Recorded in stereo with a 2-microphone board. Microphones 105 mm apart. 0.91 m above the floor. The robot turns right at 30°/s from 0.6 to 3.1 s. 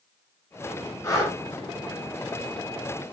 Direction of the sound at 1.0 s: 30° left (ahead or behind).